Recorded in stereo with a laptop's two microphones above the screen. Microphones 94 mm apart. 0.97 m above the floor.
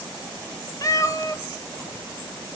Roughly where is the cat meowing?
Left.